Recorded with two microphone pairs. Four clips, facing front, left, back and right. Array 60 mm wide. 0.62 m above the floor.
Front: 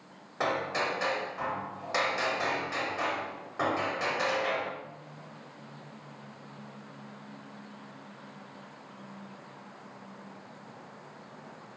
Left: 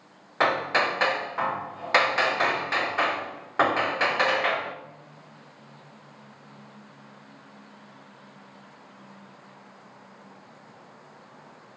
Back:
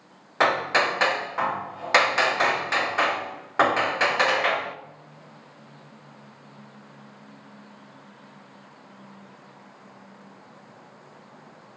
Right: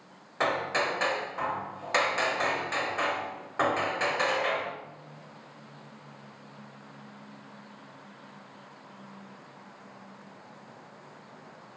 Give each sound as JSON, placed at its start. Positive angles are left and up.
{"t": 0.4, "sound": "hammering", "azimuth_deg": 150, "distance_m": 0.6}